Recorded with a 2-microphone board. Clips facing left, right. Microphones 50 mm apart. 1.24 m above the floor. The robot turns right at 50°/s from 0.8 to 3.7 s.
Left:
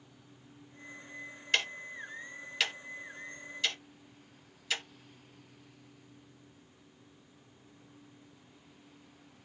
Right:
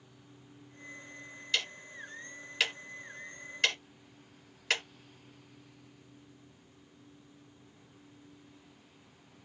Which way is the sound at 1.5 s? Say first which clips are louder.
Left 3 dB; 50° left (ahead or behind).